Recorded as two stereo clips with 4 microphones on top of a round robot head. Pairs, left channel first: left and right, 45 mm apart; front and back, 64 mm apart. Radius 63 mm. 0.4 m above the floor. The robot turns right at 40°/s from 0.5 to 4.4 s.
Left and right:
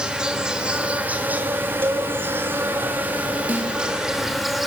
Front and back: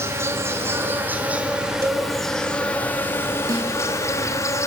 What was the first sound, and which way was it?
An insect, 155° right.